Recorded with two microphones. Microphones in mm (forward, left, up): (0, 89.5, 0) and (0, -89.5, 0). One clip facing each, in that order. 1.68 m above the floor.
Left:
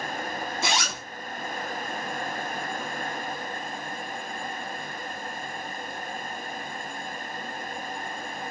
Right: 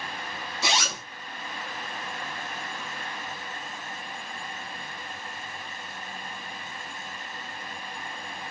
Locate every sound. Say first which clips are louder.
0.6 s a zipper: right 2 dB; 50° left (ahead or behind), 2.5 m